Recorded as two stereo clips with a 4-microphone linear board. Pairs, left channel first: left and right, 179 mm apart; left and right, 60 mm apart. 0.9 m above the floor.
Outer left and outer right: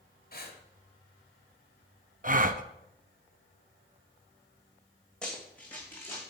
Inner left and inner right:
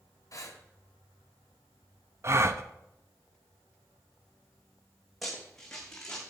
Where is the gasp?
50° right (ahead or behind), 0.7 m.